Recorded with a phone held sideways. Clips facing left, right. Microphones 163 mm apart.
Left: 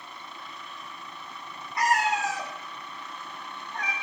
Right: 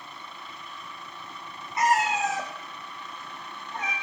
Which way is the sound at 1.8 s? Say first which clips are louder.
Right 1 dB; 25° right (ahead or behind).